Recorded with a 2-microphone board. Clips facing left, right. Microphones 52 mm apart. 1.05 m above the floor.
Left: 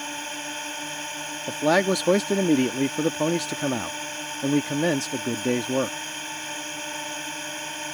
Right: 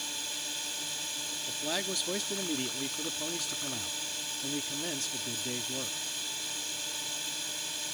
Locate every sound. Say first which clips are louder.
0.0 s a drone: left 8 dB; 40° left (ahead or behind)
1.5 s a man speaking: left 16 dB; 70° left (ahead or behind)